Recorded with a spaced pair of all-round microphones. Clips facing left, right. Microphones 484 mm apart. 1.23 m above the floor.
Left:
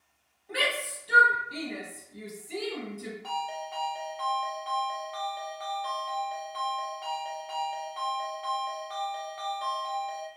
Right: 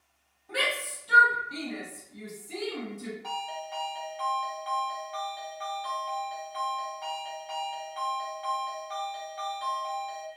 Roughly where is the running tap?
No running tap in this recording.